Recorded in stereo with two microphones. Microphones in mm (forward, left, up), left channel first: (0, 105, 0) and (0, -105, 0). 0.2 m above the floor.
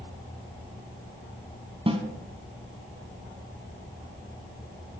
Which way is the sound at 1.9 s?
25° right (ahead or behind).